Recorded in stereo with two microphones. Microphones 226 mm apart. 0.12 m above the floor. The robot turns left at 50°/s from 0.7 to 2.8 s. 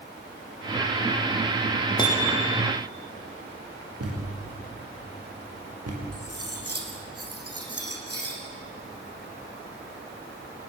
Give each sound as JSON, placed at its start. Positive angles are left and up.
{"t": 2.0, "sound": "hammering", "azimuth_deg": 20, "distance_m": 4.0}
{"t": 4.0, "sound": "a thud", "side_deg": -90, "distance_m": 6.5}
{"t": 6.1, "sound": "cutlery clinking", "side_deg": -80, "distance_m": 4.0}